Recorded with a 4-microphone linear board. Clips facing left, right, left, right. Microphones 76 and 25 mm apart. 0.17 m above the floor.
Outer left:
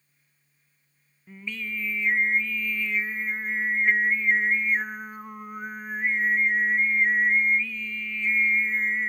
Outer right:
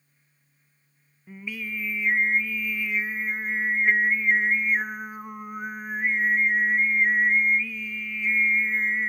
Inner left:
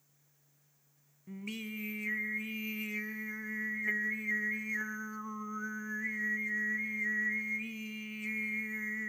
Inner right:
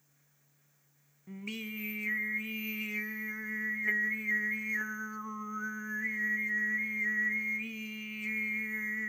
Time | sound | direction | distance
1.3 | singing | 10° right (ahead or behind) | 0.6 m